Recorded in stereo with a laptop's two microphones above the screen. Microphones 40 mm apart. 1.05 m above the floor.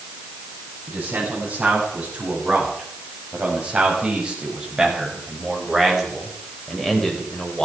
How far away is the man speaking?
About 9.5 m.